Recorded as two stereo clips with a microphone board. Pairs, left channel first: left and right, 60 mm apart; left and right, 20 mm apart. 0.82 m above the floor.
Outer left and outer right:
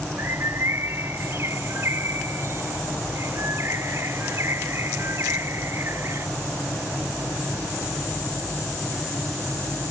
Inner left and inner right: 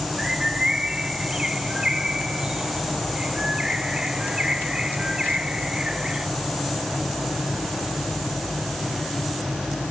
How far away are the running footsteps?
I don't hear running footsteps.